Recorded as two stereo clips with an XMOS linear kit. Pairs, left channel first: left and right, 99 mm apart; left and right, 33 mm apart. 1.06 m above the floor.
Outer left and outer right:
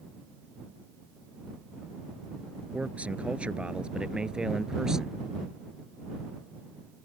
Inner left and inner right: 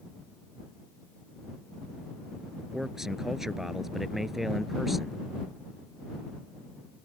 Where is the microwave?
No microwave in this recording.